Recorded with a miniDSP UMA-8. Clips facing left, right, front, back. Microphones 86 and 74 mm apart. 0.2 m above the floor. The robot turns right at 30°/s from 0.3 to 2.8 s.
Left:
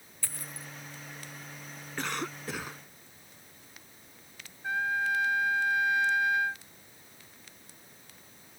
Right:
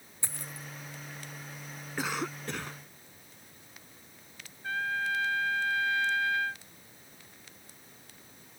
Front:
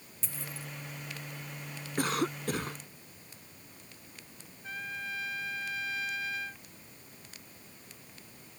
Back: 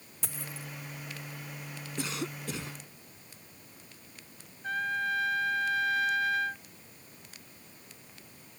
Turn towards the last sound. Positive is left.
turn(degrees=160)